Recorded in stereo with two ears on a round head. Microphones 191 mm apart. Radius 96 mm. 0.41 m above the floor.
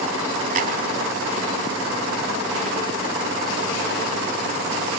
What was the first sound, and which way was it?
A clap, 35° right (ahead or behind).